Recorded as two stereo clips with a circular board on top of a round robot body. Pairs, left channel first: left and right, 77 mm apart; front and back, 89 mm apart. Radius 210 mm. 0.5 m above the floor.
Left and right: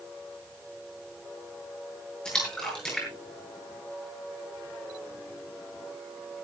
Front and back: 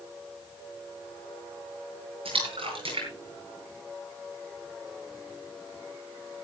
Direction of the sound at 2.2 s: 170° left.